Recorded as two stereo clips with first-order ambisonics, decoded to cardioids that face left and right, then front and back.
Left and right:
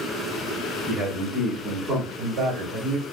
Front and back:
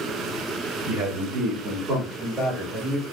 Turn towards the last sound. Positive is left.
turn(degrees=-100)